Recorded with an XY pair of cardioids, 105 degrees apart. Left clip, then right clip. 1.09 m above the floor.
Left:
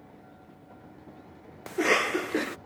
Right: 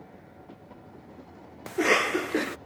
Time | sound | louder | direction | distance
1.7 | a cough | right 1 dB | 10° right | ?